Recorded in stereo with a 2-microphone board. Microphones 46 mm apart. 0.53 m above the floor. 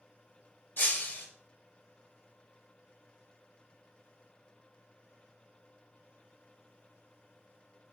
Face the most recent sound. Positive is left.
turn(degrees=50)  # may be behind; listen again after turning